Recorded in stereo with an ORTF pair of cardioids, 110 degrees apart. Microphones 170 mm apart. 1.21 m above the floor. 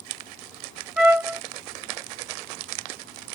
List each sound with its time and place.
1.0 s a trumpet: 5° right, 1.8 m